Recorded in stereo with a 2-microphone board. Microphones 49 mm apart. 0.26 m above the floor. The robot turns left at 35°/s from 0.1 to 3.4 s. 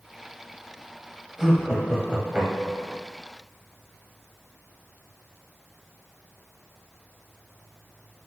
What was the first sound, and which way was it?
Laughter, 5° right.